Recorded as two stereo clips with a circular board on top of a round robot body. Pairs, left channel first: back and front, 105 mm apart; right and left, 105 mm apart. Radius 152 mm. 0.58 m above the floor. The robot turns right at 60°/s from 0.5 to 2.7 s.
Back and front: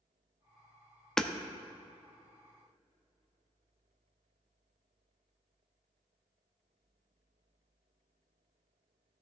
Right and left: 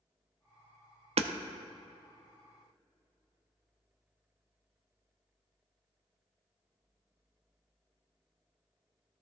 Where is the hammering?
95° left, 0.6 m; by 1.3 s 105° left, 0.6 m.